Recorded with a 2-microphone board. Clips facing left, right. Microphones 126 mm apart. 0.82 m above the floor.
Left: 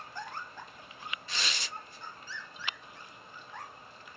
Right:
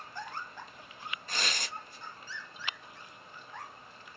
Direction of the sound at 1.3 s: 45° right (ahead or behind).